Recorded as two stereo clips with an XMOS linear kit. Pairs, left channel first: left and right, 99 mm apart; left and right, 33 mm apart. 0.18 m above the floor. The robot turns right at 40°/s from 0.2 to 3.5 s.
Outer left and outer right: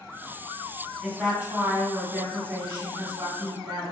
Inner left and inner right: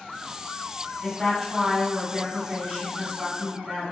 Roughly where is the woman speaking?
Centre.